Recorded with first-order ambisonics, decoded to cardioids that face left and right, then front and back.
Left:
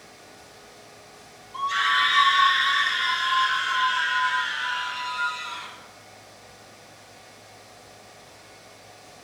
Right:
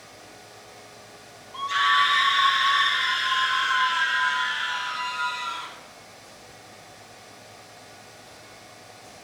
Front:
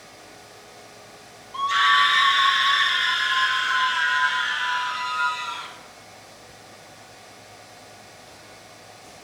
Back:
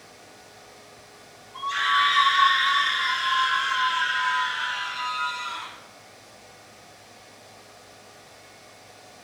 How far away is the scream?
About 1.3 m.